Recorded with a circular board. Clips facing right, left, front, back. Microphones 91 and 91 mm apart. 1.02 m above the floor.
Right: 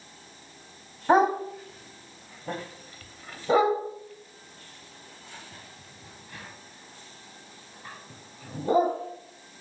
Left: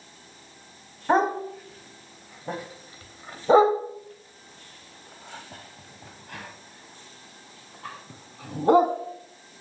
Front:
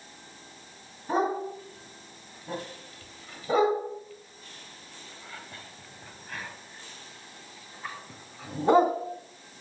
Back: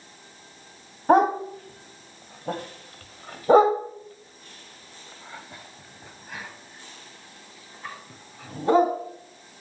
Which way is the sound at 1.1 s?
170° right.